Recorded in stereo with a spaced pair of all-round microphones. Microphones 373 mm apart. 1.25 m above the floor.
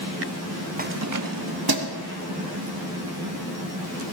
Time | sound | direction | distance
0.8 | keys jangling | 20° right (ahead or behind) | 0.6 m